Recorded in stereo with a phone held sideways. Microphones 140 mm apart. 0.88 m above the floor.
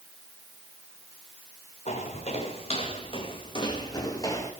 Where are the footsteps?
50° left (ahead or behind), 7.5 m; by 4.5 s 20° left (ahead or behind), 5.5 m.